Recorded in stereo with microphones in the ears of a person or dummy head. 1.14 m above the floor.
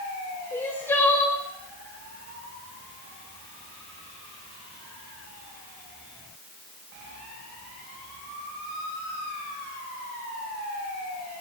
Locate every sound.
0.5 s crying: 15° left (ahead or behind), 2 m